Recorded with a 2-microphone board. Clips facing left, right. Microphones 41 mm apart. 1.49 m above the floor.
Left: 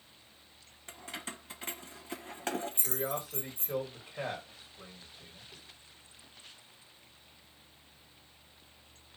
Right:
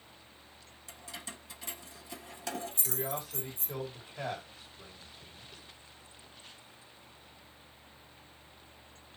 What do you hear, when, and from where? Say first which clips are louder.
0.9 s keys jangling: left 3 dB; 40° left (ahead or behind), 0.7 m
2.8 s a man speaking: left 1 dB; 55° left (ahead or behind), 2.5 m